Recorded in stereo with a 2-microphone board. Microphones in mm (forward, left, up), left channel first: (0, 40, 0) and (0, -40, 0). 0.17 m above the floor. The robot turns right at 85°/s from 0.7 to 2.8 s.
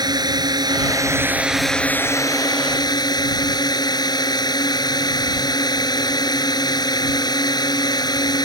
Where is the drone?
75° right; by 8.4 s 100° left.